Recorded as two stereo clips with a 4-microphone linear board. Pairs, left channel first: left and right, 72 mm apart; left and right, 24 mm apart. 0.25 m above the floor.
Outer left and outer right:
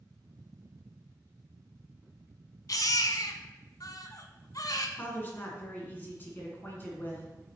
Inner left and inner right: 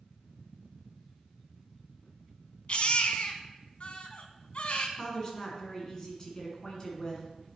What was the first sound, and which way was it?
A baby crying, 55° left (ahead or behind).